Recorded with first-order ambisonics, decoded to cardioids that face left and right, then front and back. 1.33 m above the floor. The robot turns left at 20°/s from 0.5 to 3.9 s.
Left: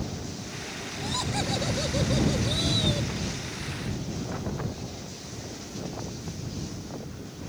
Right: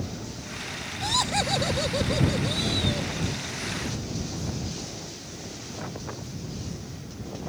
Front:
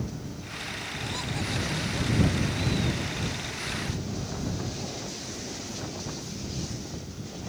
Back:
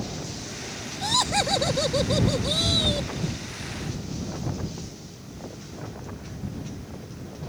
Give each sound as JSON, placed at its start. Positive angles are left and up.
{"t": 1.0, "sound": "laughter", "azimuth_deg": -150}